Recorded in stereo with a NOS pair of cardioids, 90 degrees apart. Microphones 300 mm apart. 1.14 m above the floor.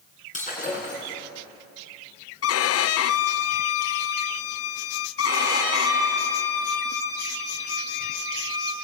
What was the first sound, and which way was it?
Breaking glass, 25° left.